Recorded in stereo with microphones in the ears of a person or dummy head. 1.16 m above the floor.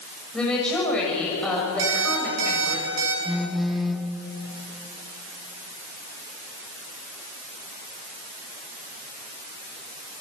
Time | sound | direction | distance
0.3 | a woman speaking | 10° left (ahead or behind) | 7 m
1.8 | an alarm clock | 75° right (ahead or behind) | 5.5 m
3.2 | a phone buzzing | centre (ahead or behind) | 1.4 m